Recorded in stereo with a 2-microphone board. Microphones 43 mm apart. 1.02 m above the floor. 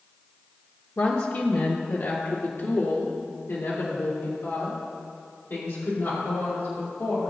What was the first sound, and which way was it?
A woman speaking, 55° left (ahead or behind).